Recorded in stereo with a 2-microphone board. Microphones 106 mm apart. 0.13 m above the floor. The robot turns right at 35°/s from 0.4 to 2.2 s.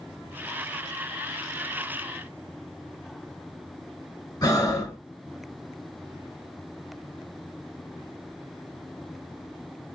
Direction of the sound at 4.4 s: 35° left (ahead or behind).